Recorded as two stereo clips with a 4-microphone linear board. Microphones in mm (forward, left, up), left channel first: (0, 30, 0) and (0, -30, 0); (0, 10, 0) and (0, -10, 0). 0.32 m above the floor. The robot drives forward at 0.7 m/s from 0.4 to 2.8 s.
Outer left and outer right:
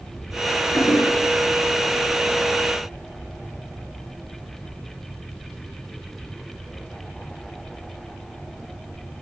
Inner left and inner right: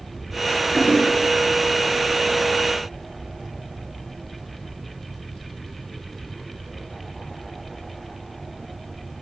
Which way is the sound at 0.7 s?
75° left (ahead or behind).